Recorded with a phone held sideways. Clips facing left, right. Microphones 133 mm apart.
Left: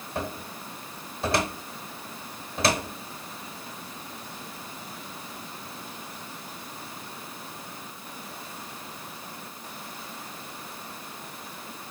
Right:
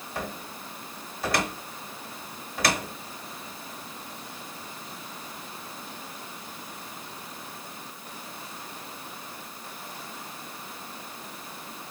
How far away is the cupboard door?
About 1.1 m.